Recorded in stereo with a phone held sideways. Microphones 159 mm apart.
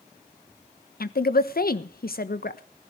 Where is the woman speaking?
70° left (ahead or behind), 1.1 m.